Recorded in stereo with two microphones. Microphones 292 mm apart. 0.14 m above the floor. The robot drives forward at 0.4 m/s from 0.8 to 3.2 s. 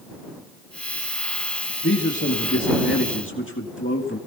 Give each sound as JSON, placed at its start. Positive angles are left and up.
{"t": 1.8, "sound": "a man speaking", "side_deg": 40, "distance_m": 2.0}